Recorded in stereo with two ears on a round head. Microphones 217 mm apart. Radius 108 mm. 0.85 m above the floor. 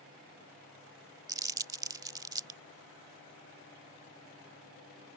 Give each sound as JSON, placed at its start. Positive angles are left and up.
{"t": 1.3, "sound": "crumpling", "side_deg": -15}